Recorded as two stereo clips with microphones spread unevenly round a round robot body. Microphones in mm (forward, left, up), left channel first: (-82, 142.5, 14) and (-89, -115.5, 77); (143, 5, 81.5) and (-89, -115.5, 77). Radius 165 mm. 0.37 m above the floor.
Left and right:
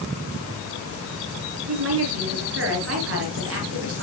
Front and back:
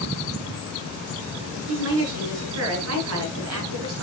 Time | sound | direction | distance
1.7 | a woman speaking | 130° right | 7 m